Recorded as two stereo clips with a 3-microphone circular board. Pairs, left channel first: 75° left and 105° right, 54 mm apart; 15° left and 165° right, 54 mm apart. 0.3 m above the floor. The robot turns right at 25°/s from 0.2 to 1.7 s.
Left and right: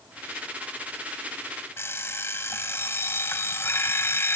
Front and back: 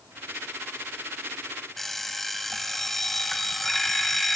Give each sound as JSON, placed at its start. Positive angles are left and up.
{"t": 1.8, "sound": "an alarm clock", "azimuth_deg": 105, "distance_m": 1.0}